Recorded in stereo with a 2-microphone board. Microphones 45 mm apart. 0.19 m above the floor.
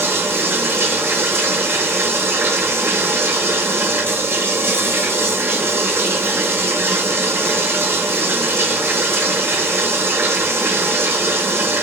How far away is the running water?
About 0.9 m.